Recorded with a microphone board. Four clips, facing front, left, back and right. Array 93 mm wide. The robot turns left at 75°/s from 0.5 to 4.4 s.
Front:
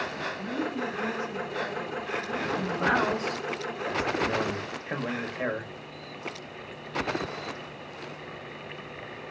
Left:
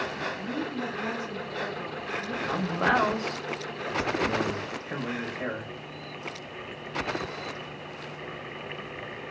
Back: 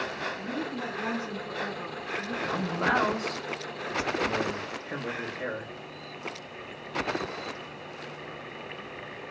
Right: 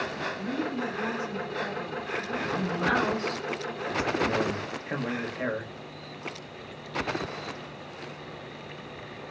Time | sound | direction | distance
0.4 | a woman speaking | 115° right | 2 m
2.5 | a man speaking | 110° left | 1.1 m